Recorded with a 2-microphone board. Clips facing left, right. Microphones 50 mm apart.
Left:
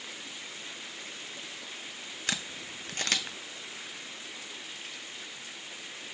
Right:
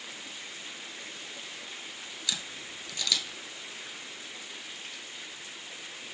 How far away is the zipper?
I don't hear a zipper.